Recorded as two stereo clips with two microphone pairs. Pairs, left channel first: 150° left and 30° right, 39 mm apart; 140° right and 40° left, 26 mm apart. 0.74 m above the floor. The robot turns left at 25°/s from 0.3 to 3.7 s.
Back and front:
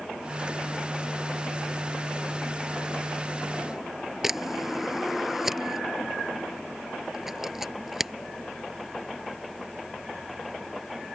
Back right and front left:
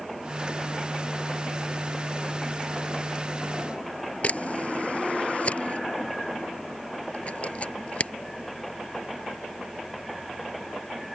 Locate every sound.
4.2 s a camera shutter: 105° right